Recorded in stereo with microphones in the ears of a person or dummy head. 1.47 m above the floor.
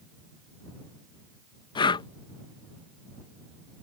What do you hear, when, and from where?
1.8 s breathing: 20° left (ahead or behind)